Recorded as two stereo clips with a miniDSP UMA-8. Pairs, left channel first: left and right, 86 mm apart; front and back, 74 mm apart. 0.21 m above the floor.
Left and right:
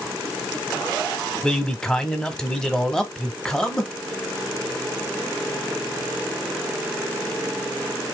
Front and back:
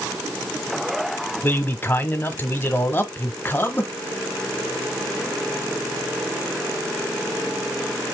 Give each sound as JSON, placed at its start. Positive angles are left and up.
{"t": 1.4, "sound": "a man speaking", "azimuth_deg": 15, "distance_m": 1.1}